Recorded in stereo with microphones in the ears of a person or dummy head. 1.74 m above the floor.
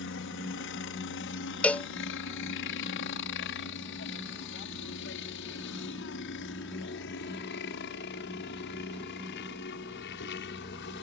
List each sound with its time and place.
0.0 s a helicopter: 70° left (ahead or behind); by 11.0 s 65° left (ahead or behind)
1.6 s a cowbell: 10° left (ahead or behind)